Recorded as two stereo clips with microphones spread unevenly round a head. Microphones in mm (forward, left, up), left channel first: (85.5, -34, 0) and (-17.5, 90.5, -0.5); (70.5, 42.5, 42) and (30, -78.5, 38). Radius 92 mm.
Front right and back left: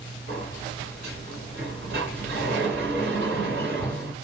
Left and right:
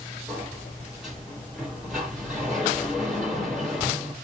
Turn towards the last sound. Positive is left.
turn(degrees=165)